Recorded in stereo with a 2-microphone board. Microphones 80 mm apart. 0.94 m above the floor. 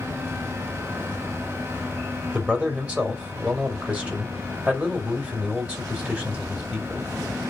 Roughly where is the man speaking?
Centre.